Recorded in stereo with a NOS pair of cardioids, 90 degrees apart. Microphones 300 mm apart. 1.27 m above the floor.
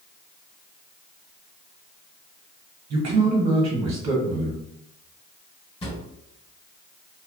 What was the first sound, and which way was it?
A man speaking, 65° right.